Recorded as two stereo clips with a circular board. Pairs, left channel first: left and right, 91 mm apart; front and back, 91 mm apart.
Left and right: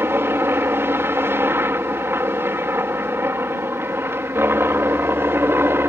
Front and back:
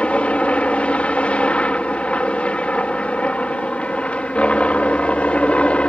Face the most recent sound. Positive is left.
turn(degrees=-60)